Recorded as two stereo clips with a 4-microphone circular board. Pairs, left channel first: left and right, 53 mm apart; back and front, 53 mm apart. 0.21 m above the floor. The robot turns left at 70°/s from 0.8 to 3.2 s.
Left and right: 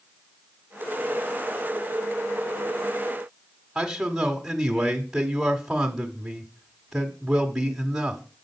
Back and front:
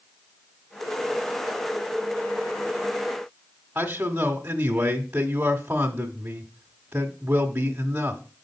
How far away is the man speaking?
About 1.2 m.